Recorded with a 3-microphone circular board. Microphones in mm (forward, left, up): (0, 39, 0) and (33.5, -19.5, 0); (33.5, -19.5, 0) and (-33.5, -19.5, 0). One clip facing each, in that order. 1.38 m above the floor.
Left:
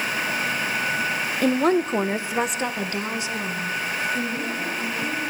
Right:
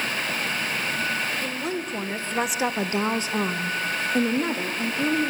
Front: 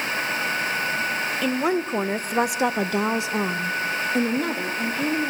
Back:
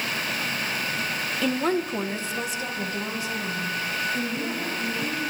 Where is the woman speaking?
90° left, 1.5 m; by 5.3 s 30° right, 4 m.